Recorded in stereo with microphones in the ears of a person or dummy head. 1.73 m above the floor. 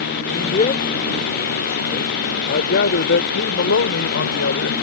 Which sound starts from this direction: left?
A man speaking, at 0.3 s.